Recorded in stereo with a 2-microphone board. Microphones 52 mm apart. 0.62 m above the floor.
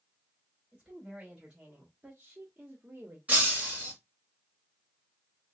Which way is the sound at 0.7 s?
10° right (ahead or behind).